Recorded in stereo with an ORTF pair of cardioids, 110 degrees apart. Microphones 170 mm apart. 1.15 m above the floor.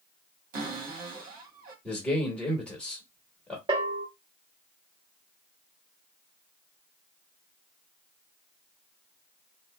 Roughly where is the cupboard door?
Ahead right.